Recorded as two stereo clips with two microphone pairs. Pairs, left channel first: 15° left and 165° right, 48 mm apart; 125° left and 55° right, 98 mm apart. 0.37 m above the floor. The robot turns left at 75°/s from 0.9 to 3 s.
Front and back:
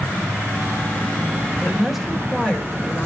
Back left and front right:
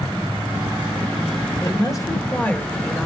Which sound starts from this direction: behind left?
A woman speaking, at 1.6 s.